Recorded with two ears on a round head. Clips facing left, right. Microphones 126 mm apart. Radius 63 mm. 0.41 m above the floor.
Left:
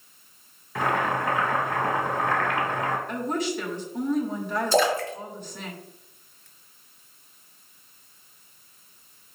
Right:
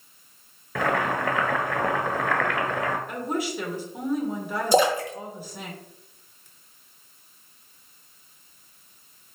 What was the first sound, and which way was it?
Boiling, 60° right (ahead or behind).